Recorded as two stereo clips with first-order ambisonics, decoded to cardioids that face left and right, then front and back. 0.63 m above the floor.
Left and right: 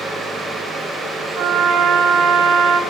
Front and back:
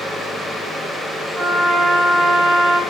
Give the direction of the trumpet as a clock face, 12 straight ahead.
4 o'clock.